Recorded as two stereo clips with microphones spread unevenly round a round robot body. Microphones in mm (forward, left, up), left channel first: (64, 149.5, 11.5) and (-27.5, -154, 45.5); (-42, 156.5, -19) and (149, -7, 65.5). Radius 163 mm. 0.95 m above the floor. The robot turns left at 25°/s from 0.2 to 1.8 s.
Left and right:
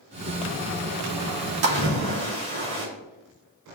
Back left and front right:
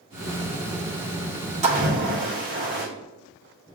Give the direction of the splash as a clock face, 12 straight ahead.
4 o'clock.